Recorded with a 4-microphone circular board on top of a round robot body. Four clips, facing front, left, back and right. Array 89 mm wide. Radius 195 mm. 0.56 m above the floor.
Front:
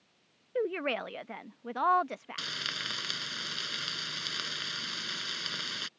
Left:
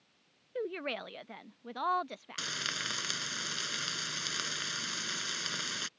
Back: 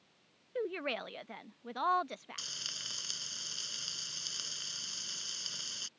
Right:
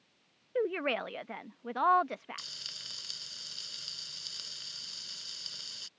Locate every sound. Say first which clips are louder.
0.6 s a woman speaking: right 5 dB, front 5 dB; 60° right
2.4 s frying: left 15 dB, front 12 dB; 60° left